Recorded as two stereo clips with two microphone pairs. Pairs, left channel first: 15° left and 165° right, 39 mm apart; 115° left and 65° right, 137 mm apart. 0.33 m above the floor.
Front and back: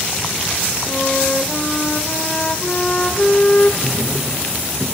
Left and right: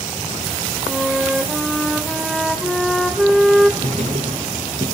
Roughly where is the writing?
Right.